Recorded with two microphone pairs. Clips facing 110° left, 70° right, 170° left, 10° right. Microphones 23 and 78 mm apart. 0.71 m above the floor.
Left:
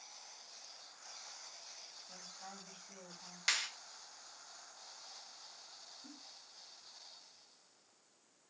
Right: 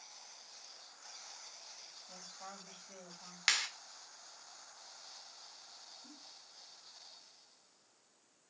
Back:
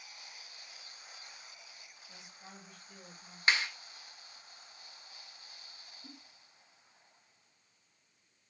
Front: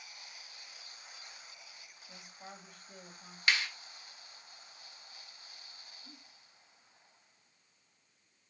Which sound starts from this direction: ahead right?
A woman speaking, at 2.1 s.